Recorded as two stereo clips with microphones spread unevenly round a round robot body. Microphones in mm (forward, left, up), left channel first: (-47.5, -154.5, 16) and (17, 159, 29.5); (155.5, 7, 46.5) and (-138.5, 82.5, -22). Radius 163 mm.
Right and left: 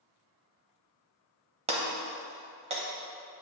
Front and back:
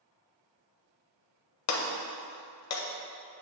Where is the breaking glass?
10° left, 0.9 m.